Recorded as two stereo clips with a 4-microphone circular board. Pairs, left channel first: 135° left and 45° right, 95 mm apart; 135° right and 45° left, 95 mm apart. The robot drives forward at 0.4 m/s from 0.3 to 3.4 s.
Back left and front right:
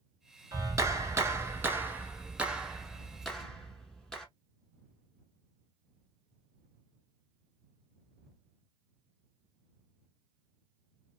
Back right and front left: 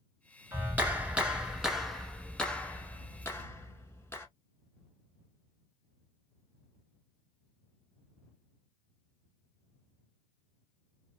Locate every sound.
0.5 s a clap: 15° right, 1.2 m; by 4.3 s 150° right, 1.0 m